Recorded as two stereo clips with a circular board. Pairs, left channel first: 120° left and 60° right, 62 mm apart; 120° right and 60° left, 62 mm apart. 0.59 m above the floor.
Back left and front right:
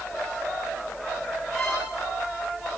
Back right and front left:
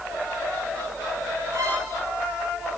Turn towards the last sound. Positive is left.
turn(degrees=35)